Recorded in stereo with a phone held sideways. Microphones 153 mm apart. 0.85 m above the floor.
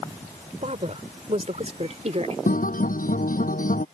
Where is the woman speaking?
50° right (ahead or behind); by 2.4 s 45° right (ahead or behind).